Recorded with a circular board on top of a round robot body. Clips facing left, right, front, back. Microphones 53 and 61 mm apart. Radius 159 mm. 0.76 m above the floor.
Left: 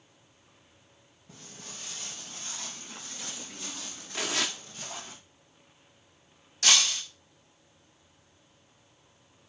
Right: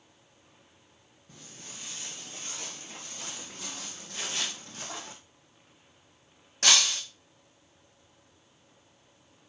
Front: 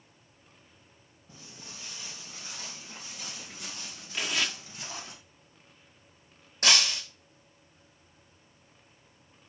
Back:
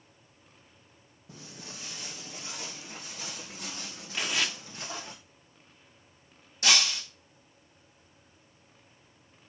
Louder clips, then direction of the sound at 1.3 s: Left 1 dB, back 3 dB; 170° left.